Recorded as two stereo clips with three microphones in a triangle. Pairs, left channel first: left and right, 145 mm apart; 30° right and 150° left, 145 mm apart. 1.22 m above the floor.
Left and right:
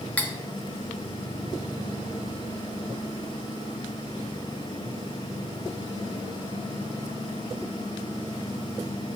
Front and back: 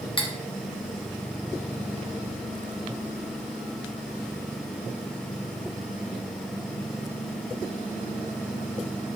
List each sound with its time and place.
0.2 s cutlery clinking: 15° left, 0.9 m